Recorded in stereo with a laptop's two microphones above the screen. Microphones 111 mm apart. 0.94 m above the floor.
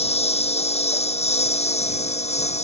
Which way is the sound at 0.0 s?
70° left (ahead or behind).